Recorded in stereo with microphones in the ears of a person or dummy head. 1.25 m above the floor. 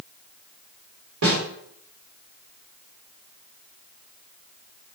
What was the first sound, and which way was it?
A snare drum, 85° right.